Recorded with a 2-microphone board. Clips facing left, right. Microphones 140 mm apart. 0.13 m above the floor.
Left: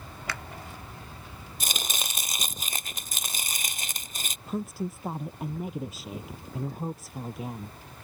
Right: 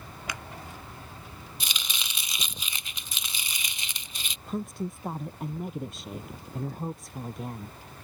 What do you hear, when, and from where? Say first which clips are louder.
0.3 s a finger snap: left 1 dB; 15° right (ahead or behind)
1.6 s chopping: left 6 dB; 45° left (ahead or behind)
4.5 s a woman speaking: left 1 dB; centre (ahead or behind)